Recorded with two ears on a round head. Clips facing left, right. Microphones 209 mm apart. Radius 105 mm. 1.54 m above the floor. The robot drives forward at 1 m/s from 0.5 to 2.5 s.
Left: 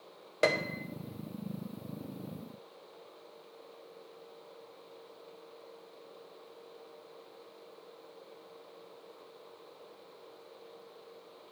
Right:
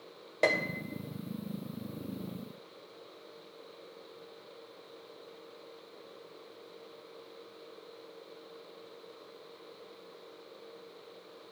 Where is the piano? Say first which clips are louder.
Even; 10° left (ahead or behind), 0.8 m.